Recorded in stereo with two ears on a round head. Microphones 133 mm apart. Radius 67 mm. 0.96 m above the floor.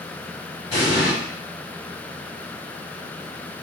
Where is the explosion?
30° left (ahead or behind), 2 m.